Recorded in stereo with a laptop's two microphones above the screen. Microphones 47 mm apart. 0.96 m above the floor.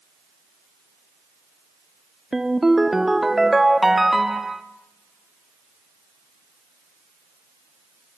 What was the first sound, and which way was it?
A ringtone, 5° right (ahead or behind).